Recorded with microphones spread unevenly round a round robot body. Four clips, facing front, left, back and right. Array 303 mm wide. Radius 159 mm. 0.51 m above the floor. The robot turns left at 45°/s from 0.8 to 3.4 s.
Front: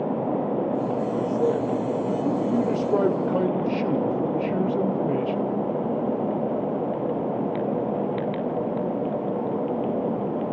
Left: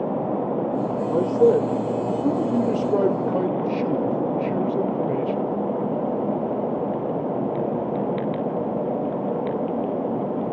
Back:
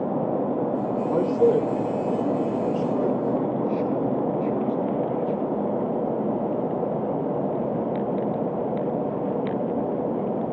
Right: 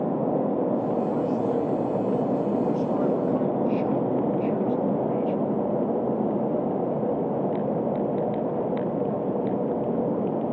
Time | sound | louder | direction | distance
1.1 | a man speaking | left 7 dB, back 6 dB | 130° left | 1.9 m